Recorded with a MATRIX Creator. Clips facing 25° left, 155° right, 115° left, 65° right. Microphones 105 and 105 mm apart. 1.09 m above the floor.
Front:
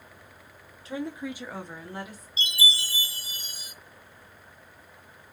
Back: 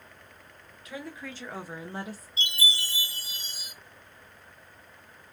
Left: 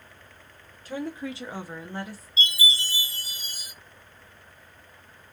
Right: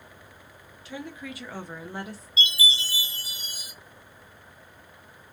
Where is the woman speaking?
75° left, 0.9 m; by 2.3 s 120° right, 0.8 m.